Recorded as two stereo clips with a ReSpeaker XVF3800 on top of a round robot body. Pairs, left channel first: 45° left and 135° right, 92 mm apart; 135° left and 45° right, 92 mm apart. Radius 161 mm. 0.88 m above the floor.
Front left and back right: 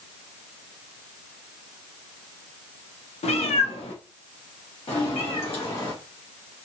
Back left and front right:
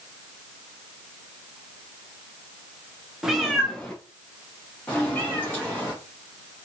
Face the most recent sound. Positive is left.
turn(degrees=65)